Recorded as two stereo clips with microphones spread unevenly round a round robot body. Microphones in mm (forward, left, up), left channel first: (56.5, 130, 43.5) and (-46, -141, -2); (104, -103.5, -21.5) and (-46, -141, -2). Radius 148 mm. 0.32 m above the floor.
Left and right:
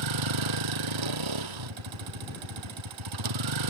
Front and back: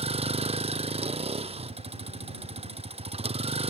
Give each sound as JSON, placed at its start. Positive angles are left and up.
{"t": 0.0, "sound": "a vehicle", "azimuth_deg": -115}